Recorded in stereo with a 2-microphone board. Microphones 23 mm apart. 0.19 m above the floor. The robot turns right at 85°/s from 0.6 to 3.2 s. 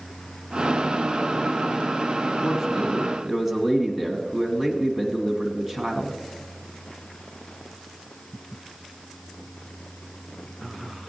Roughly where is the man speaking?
Behind.